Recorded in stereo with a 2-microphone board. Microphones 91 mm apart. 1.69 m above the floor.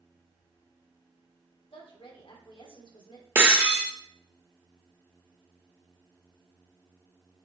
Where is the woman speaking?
70° left (ahead or behind), 2 m.